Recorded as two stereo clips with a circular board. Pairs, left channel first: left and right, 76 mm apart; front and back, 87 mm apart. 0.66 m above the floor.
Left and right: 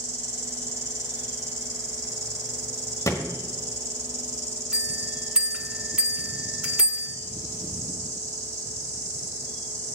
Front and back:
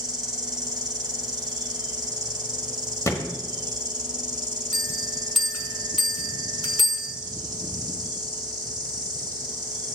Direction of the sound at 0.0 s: 135° right.